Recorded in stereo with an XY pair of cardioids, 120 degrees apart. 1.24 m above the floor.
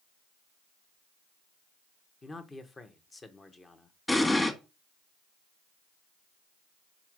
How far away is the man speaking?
About 1.4 m.